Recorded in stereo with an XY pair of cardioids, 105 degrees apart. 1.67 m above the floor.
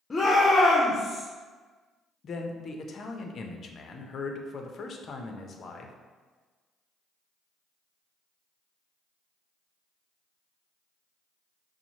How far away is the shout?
About 0.6 m.